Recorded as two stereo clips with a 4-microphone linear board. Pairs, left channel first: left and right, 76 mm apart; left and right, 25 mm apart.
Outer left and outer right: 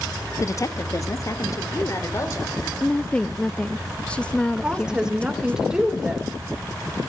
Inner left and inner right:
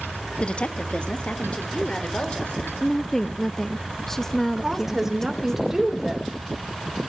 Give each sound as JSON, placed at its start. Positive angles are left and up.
{"t": 0.4, "sound": "a woman speaking", "side_deg": 45, "distance_m": 0.9}
{"t": 2.8, "sound": "a woman speaking", "side_deg": 15, "distance_m": 0.5}
{"t": 4.6, "sound": "a woman speaking", "side_deg": -10, "distance_m": 3.0}